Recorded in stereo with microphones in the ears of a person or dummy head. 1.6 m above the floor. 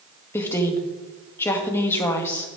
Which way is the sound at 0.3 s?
15° left (ahead or behind).